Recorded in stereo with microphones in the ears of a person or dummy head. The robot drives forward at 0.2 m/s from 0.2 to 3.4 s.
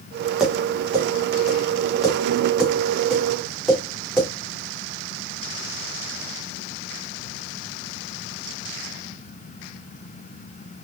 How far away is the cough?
No cough in this recording.